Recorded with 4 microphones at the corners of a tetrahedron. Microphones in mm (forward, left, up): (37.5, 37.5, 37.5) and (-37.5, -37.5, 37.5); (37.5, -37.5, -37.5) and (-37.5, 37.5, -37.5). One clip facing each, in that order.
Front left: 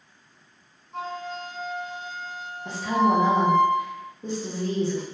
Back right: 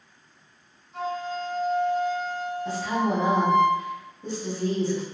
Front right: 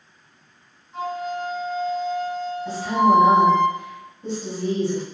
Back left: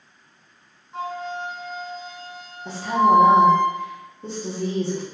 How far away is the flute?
About 1.1 m.